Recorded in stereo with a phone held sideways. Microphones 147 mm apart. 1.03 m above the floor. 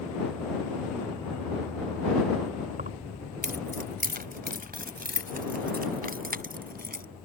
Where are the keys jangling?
80° right; by 7.0 s 85° right.